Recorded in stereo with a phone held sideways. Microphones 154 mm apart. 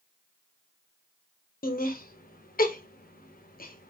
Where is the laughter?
70° left (ahead or behind), 0.6 m.